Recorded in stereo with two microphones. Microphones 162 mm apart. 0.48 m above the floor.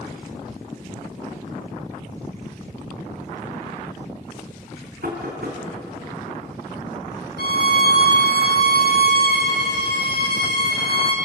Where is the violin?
80° left, 3.5 m.